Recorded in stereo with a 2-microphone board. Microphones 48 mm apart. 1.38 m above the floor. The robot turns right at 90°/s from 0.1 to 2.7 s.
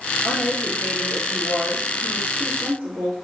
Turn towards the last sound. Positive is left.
turn(degrees=-100)